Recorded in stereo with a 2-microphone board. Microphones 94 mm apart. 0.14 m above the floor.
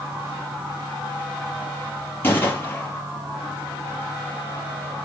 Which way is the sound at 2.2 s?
25° left (ahead or behind).